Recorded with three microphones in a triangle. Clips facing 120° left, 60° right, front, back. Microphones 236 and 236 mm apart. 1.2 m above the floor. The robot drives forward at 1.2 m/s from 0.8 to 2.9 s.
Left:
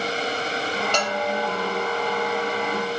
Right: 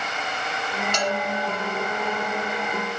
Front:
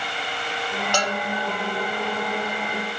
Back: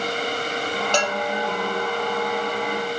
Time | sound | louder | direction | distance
0.9 | a bell | right 1 dB, back 1 dB | 110° left | 2.5 m